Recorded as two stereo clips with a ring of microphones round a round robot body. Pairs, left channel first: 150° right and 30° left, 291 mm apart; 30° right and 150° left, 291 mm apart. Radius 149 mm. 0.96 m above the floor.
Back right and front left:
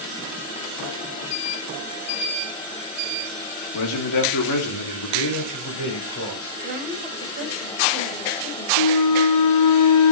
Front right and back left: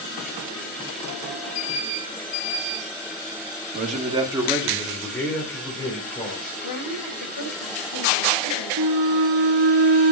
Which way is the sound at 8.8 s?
170° right.